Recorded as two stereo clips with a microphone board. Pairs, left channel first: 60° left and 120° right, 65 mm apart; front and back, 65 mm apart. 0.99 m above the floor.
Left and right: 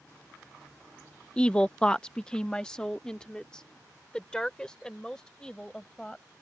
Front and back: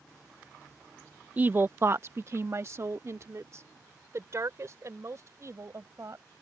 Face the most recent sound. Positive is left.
turn(degrees=140)